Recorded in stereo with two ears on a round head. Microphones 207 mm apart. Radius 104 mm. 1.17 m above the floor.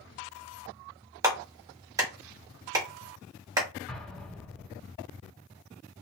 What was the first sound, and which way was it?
A clap, 15° right (ahead or behind).